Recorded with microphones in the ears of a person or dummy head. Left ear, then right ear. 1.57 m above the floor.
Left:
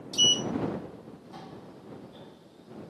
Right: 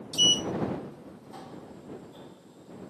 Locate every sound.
0.1 s a sliding door: centre (ahead or behind)